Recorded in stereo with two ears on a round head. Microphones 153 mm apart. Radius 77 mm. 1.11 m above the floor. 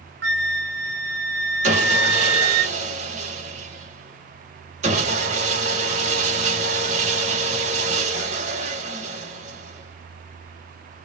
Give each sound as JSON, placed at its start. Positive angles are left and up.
{"t": 0.2, "sound": "a flute", "side_deg": -75, "distance_m": 0.7}
{"t": 1.6, "sound": "sawing", "side_deg": -45, "distance_m": 1.1}